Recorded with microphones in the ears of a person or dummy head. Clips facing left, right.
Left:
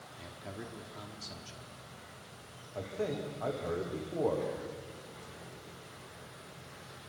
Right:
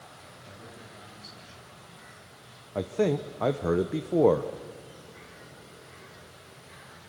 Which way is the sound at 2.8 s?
65° right (ahead or behind).